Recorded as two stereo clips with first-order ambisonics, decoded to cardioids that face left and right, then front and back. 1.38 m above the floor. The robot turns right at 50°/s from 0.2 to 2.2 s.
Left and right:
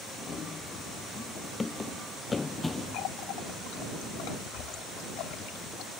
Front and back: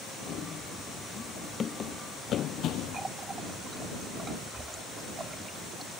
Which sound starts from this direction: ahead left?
Running footsteps, at 0.3 s.